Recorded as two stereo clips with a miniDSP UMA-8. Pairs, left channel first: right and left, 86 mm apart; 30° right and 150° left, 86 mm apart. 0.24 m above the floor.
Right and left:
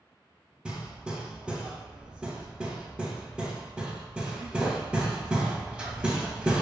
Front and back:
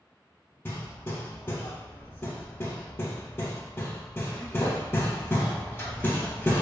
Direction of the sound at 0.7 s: 20° left.